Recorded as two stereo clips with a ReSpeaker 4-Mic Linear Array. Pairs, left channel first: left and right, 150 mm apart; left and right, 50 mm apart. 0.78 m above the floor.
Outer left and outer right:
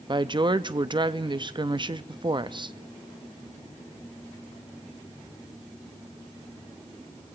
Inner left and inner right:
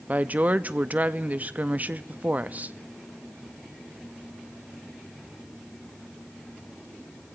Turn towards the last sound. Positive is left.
turn(degrees=-35)  # may be behind; listen again after turning